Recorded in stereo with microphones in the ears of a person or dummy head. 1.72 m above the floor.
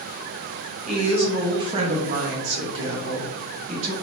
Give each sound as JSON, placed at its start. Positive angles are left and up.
{"t": 0.9, "sound": "a woman speaking", "side_deg": 0, "distance_m": 0.9}